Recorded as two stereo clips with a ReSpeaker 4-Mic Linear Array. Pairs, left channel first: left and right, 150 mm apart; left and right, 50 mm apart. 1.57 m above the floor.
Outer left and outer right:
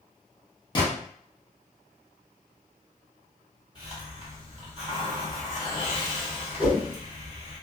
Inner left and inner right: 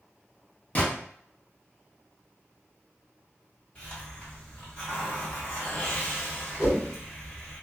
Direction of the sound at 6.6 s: 70° left (ahead or behind).